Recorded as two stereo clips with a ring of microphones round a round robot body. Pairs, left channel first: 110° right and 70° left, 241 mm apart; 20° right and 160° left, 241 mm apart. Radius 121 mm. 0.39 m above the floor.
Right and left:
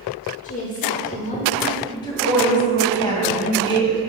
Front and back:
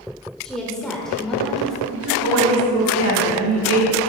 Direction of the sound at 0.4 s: 110° right.